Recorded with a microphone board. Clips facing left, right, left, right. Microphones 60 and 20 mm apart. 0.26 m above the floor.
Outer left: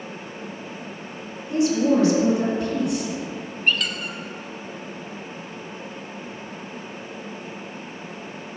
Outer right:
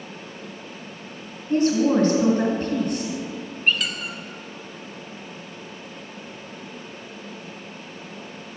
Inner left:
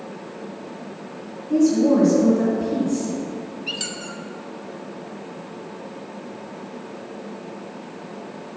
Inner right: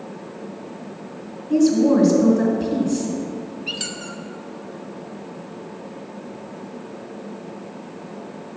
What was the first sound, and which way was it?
A woman speaking, 45° right (ahead or behind).